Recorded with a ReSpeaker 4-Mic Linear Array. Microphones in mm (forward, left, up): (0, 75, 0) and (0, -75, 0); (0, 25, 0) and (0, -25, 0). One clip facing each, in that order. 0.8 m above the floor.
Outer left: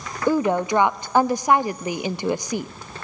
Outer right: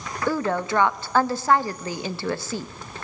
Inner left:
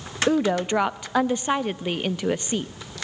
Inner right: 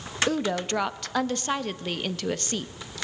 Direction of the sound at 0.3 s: 15° left (ahead or behind).